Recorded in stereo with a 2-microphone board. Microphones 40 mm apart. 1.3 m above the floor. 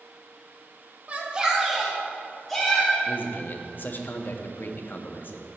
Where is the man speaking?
55° left (ahead or behind), 0.7 m.